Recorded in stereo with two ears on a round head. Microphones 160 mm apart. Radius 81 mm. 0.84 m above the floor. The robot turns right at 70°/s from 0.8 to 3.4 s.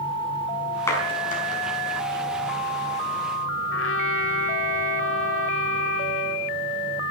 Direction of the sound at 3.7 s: 75° left (ahead or behind).